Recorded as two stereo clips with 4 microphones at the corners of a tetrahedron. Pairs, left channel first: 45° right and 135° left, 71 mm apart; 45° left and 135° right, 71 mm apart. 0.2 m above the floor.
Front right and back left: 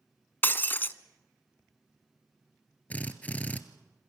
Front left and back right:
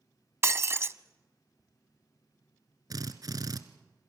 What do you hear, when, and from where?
0.4 s breaking glass: 95° right, 0.6 m
2.9 s a drill: 110° right, 1.2 m